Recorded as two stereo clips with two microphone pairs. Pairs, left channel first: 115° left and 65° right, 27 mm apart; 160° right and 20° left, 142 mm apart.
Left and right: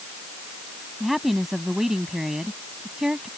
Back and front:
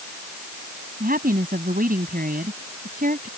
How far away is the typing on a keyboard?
No typing on a keyboard in this recording.